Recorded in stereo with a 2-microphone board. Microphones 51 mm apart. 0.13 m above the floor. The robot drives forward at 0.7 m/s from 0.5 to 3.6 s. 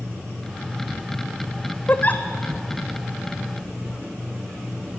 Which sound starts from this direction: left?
A giggle, at 1.9 s.